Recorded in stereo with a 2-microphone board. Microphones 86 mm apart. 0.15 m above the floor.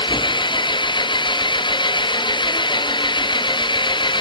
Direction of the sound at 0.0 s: 70° left (ahead or behind).